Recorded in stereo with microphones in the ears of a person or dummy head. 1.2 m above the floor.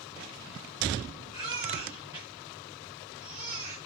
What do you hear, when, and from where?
1.3 s a baby crying: 25° right (ahead or behind), 8 m